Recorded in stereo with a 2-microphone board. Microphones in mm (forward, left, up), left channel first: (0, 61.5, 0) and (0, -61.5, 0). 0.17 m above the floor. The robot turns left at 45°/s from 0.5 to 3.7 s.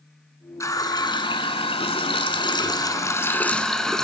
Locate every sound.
0.6 s a running tap: 145° left, 1.2 m; by 4.0 s 5° left, 1.2 m